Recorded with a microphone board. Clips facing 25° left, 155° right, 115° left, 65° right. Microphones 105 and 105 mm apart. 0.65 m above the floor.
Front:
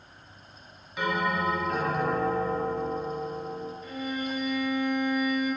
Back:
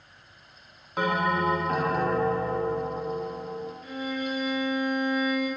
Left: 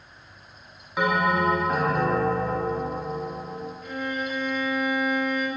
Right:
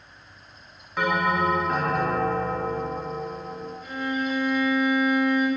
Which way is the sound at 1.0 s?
170° right.